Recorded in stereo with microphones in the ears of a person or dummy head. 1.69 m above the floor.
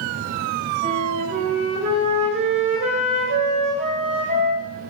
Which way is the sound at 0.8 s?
50° right (ahead or behind).